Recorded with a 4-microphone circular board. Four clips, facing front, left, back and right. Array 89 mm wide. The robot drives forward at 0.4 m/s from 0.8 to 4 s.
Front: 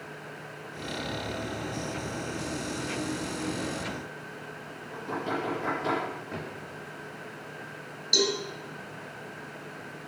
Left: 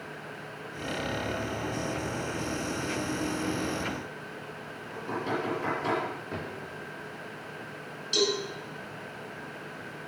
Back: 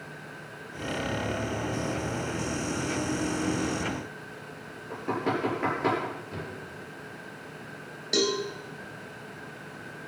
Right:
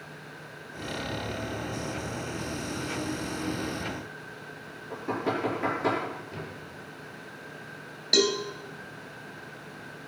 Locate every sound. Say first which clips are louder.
4.9 s knocking: right 2 dB, back 3 dB; 165° right, 7.5 m
6.3 s a drawer: left 3 dB, even; 65° left, 4 m
8.1 s a cowbell: right 3 dB, back 1 dB; 120° right, 2.5 m